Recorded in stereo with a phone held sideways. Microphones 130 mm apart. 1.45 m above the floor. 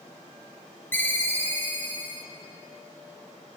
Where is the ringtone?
15° left (ahead or behind), 2 m.